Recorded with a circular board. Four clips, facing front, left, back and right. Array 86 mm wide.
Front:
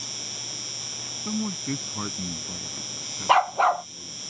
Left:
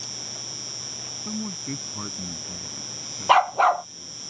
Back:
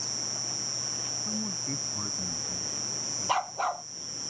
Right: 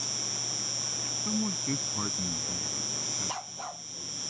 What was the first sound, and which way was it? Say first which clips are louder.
An insect: right 1 dB, even; 5° right.